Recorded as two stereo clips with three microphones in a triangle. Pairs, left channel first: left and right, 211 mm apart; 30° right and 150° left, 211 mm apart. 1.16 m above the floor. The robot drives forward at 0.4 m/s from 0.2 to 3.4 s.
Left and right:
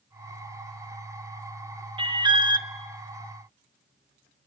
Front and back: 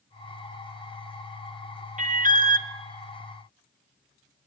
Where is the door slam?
No door slam in this recording.